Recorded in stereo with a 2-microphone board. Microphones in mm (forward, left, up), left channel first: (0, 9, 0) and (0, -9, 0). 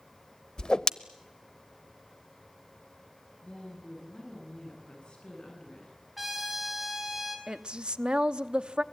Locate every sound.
0.6 s a whoosh: 45° left (ahead or behind), 0.7 m
3.4 s a woman speaking: 50° left (ahead or behind), 9.5 m
6.2 s a trumpet: 10° right (ahead or behind), 5.5 m
7.5 s a woman speaking: 55° right (ahead or behind), 0.9 m